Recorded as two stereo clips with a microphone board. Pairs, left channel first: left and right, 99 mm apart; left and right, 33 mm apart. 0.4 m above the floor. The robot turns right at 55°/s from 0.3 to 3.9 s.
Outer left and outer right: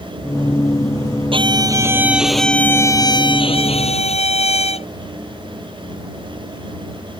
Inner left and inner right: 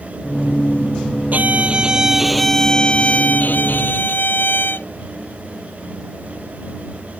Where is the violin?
55° right; by 4.9 s 85° left.